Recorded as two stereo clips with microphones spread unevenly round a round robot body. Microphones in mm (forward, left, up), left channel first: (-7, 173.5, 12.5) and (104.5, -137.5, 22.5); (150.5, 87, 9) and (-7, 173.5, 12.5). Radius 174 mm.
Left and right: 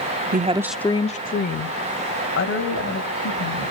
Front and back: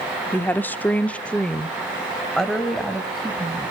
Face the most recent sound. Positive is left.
turn(degrees=60)